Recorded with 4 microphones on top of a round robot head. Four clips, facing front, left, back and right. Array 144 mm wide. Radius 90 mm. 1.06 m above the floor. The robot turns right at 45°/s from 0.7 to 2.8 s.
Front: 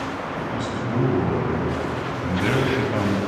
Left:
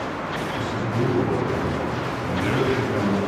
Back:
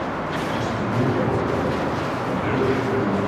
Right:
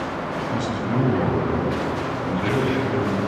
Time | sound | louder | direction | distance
0.5 | a man speaking | right 4 dB, even | 80° right | 6.5 m